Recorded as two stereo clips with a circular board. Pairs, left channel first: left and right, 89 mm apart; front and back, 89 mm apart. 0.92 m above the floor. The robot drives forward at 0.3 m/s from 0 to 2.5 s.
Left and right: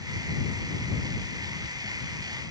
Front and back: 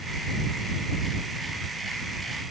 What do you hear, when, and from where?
Only background noise.